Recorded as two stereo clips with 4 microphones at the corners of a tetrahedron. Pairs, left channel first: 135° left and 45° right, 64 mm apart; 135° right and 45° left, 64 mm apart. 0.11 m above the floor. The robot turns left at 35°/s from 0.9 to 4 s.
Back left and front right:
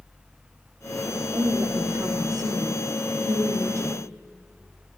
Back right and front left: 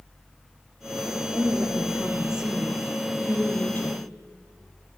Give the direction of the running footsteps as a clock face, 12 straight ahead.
I don't hear running footsteps.